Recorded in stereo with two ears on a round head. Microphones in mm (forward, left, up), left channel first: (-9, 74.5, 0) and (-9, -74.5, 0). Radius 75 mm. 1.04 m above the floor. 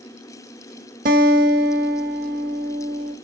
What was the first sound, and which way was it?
A guitar, 45° right (ahead or behind).